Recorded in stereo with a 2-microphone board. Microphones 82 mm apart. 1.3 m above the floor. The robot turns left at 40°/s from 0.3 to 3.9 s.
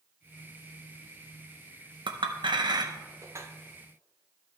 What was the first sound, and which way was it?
A clink, 75° right (ahead or behind).